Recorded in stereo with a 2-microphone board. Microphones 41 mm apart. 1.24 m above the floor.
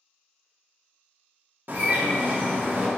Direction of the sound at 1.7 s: 50° right (ahead or behind).